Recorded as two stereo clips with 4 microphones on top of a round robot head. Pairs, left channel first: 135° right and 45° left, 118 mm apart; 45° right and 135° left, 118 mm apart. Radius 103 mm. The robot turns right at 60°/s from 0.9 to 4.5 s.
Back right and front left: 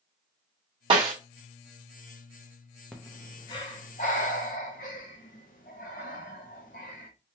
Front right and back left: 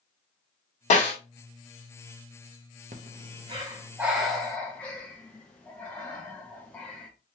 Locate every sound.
0.9 s a snare drum: 10° right, 1.4 m; by 1.1 s 5° left, 1.4 m
2.9 s breathing: 145° left, 0.5 m; by 7.1 s 120° right, 0.5 m